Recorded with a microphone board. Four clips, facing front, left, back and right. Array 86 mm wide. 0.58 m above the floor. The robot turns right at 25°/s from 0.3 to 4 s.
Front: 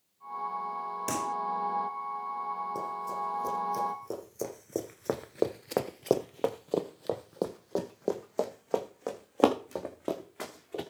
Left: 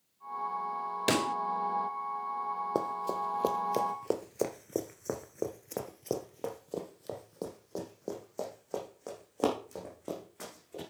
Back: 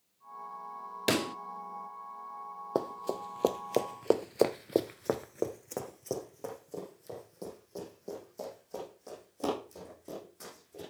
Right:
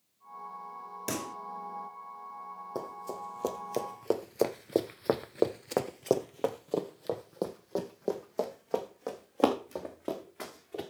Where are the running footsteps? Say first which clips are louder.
Left 4 dB, back 1 dB; 140° left, 1.5 m; by 10.8 s 20° right, 3.5 m.